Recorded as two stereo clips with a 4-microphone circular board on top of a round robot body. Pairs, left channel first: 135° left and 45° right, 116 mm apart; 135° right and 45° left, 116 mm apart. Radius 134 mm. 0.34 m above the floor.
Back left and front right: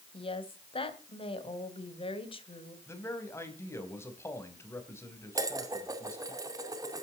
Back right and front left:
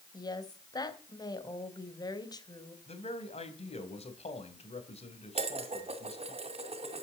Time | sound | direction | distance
0.1 | a woman speaking | 170° left | 3 m
2.9 | a man speaking | 160° right | 4 m
5.3 | dishes clattering | 15° left | 2.5 m